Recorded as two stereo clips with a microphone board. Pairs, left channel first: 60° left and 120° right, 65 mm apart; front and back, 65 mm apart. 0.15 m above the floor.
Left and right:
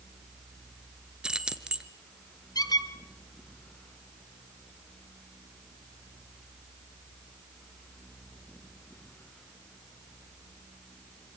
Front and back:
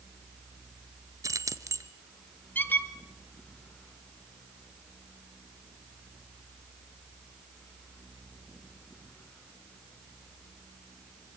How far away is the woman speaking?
No woman speaking in this recording.